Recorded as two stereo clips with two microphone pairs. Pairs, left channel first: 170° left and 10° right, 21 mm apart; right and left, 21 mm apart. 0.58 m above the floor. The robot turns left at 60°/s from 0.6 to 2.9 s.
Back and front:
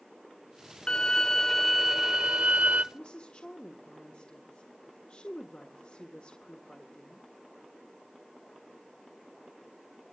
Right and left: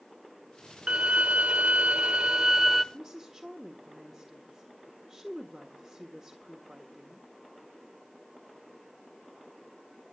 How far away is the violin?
About 0.6 m.